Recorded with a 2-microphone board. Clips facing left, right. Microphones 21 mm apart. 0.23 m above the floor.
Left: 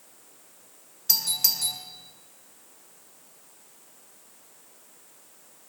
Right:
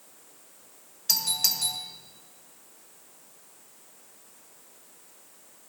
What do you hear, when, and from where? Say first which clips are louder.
1.1 s a doorbell: even; 10° right (ahead or behind), 1.7 m